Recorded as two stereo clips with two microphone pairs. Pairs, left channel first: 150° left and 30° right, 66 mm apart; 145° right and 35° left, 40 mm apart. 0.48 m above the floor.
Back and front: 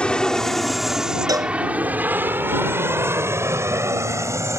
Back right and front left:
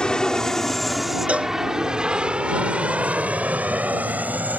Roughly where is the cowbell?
Ahead.